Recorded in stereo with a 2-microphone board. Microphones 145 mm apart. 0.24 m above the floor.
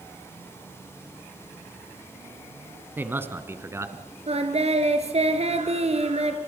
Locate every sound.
3.0 s a man speaking: 15° right (ahead or behind), 1.9 m; by 4.0 s 20° right (ahead or behind), 2.5 m
4.3 s singing: 45° right (ahead or behind), 2.5 m